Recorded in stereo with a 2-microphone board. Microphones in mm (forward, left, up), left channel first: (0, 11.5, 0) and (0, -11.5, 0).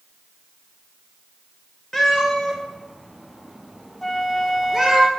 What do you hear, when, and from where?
1.9 s a cat meowing: 20° left (ahead or behind), 2.5 m; by 5.0 s 10° right (ahead or behind), 3 m
4.0 s a flute: 20° left (ahead or behind), 1.1 m